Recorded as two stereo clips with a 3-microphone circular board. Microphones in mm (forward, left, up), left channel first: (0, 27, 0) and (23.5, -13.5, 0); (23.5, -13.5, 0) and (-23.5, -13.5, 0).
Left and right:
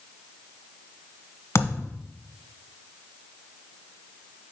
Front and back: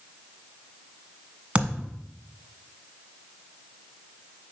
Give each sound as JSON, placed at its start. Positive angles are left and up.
{"t": 1.6, "sound": "a thud", "azimuth_deg": 115, "distance_m": 1.3}